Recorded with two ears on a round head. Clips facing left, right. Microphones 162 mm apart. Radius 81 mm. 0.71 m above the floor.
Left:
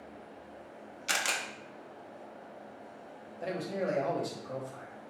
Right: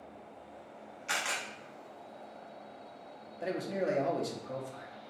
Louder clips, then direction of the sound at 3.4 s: Even; 15° right (ahead or behind).